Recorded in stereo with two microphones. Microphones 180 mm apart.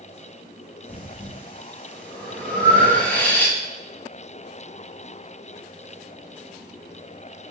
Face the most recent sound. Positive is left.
turn(degrees=10)  # may be behind; listen again after turning